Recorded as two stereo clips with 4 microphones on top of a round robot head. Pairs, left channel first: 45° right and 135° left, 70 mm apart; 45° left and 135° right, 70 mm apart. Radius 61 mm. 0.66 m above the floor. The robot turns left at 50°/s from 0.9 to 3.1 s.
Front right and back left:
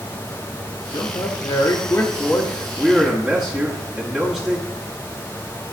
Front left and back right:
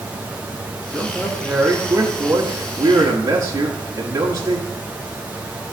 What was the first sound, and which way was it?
A man speaking, 35° right.